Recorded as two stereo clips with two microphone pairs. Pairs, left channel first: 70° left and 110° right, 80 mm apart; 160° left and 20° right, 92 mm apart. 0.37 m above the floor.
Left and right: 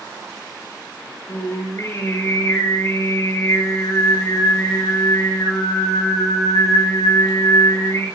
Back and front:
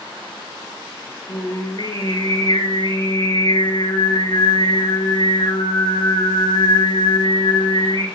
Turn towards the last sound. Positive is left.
turn(degrees=125)